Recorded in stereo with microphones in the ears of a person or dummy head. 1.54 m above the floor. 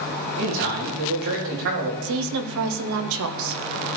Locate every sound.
0.4 s a man speaking: 65° right (ahead or behind), 3.5 m
2.0 s a woman speaking: 75° right (ahead or behind), 1.2 m